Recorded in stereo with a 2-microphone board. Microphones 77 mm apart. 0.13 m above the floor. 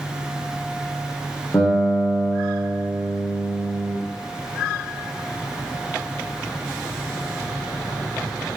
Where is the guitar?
35° left (ahead or behind), 3.5 m.